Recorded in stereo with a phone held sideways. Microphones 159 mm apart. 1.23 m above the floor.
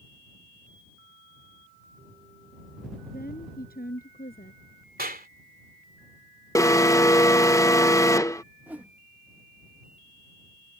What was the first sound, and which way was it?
A woman speaking, 60° left (ahead or behind).